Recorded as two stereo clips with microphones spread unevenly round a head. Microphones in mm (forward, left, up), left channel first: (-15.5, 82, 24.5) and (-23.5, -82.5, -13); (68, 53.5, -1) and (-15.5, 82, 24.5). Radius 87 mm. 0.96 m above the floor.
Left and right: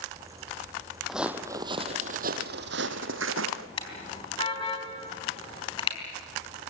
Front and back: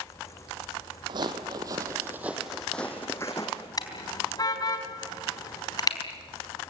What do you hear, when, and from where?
1.1 s footsteps: 170° left, 1.9 m; by 3.7 s 95° right, 3 m
3.8 s a car horn: 25° left, 4 m